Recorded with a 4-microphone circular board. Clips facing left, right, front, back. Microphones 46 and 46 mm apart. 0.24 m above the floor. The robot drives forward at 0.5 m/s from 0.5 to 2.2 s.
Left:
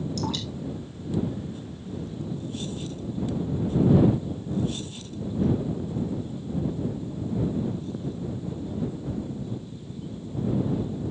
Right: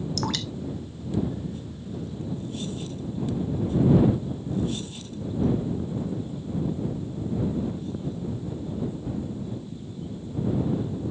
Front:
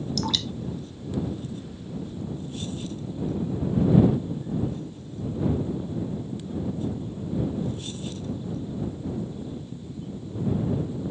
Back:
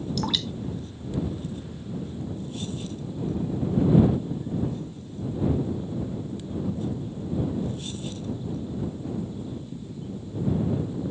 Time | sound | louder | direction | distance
0.2 | dripping | right 1 dB, even | 105° right | 1.1 m